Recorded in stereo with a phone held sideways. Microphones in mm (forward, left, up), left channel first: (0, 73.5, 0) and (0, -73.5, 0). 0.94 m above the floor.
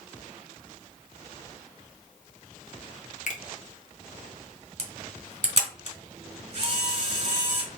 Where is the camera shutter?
45° right (ahead or behind), 1.4 m.